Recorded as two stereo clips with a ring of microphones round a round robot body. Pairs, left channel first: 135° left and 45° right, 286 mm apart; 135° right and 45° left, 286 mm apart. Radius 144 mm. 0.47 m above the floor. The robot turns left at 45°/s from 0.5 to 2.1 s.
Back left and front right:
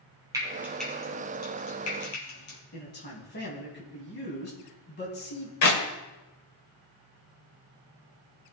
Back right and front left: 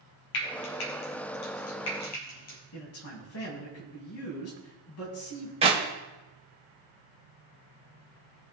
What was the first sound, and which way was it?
Frying, 125° right.